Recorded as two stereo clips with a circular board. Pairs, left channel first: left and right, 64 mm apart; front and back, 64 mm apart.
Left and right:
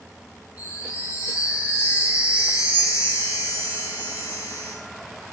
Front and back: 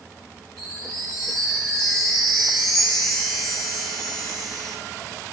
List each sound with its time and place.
0.6 s a chime: 80° left, 4 m